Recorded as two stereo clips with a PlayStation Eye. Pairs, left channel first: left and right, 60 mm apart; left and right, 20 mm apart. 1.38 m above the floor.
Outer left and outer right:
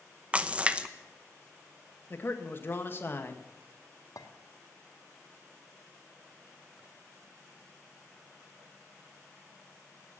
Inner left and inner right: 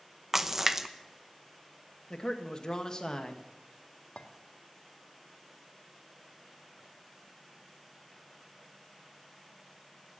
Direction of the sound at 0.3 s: 20° right (ahead or behind).